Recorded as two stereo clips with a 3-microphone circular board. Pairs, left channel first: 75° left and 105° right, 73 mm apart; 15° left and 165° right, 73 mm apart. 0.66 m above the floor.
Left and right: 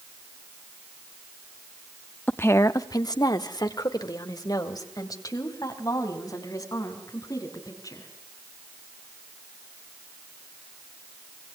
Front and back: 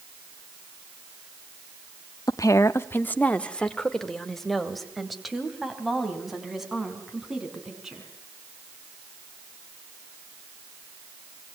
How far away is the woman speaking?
About 0.9 m.